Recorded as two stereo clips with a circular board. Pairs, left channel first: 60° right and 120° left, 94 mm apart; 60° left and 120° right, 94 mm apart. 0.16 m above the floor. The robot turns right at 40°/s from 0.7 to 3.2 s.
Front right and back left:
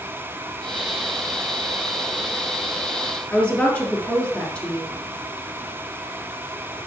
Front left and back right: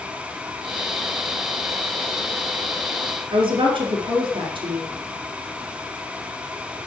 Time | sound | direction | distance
3.3 | a woman speaking | 140° right | 4 m